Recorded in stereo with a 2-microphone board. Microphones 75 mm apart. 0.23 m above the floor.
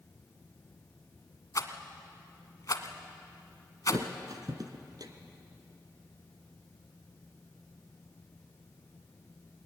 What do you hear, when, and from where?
1.6 s a rattle: 50° left (ahead or behind), 1.4 m
3.9 s a thud: 60° right (ahead or behind), 1.4 m